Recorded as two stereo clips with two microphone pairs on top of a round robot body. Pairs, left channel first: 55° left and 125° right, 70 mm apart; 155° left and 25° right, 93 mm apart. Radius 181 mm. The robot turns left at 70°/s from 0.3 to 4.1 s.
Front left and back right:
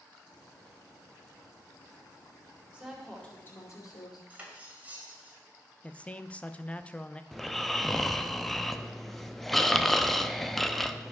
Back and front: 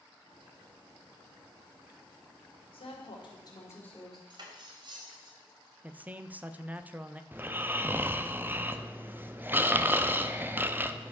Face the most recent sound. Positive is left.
turn(degrees=-35)